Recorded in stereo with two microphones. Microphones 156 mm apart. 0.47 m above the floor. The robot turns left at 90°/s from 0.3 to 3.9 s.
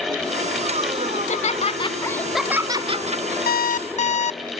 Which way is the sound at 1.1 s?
110° left.